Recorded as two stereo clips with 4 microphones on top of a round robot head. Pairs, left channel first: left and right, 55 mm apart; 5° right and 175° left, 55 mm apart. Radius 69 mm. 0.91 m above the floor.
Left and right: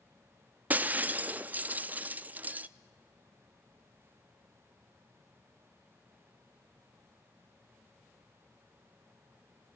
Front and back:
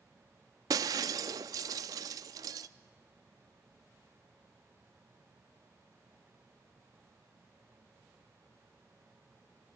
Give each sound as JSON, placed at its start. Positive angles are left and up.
{"t": 0.7, "sound": "breaking glass", "azimuth_deg": -150, "distance_m": 0.6}